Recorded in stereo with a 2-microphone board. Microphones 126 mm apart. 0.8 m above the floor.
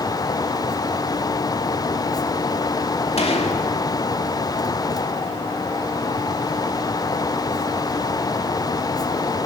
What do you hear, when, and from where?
3.2 s a gunshot: 55° left (ahead or behind), 2.5 m